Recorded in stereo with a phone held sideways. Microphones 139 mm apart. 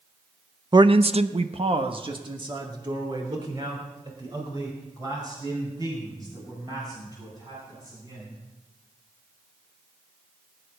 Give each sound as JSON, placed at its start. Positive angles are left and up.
{"t": 0.7, "sound": "a man speaking", "side_deg": -30, "distance_m": 0.7}